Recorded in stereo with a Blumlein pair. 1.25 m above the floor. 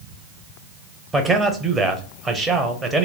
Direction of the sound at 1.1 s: 10° right.